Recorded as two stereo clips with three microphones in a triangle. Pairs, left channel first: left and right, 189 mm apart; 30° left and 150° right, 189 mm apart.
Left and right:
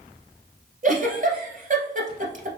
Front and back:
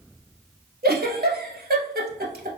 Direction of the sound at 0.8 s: 125° right.